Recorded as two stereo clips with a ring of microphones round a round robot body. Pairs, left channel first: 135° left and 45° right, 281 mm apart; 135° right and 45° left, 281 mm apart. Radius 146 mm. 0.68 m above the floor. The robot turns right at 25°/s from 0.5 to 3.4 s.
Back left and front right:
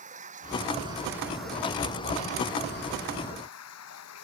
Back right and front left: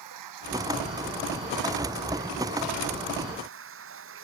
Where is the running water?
20° left; by 4.2 s 95° left.